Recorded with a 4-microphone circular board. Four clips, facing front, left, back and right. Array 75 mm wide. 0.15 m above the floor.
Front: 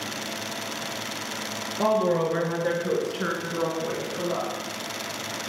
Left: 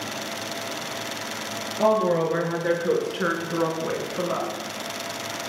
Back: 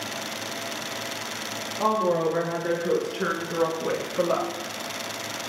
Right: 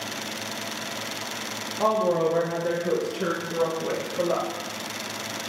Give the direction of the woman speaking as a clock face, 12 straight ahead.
10 o'clock.